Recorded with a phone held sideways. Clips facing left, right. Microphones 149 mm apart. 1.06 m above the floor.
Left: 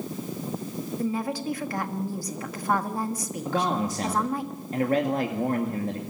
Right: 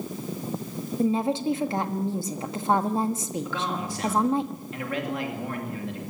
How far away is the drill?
I don't hear a drill.